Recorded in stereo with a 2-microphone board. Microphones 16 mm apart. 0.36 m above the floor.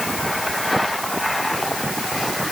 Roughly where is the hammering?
I don't hear hammering.